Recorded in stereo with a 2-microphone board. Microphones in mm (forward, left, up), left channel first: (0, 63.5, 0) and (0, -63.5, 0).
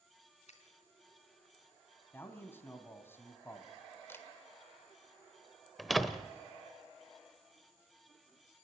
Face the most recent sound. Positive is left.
turn(degrees=0)  # may be behind; listen again after turning